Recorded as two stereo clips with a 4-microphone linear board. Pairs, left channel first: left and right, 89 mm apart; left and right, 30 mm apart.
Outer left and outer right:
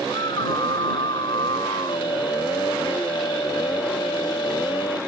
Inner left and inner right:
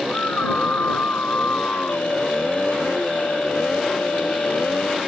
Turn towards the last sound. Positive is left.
turn(degrees=60)  # may be behind; listen again after turning